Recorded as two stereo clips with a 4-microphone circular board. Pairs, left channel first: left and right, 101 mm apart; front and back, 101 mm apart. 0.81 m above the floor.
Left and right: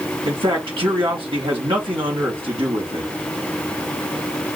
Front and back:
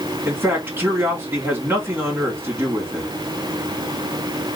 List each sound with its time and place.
0.2 s a man speaking: 115° right, 1.8 m